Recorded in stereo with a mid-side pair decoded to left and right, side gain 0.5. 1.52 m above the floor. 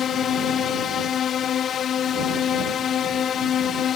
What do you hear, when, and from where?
0.0 s a drone: 55° left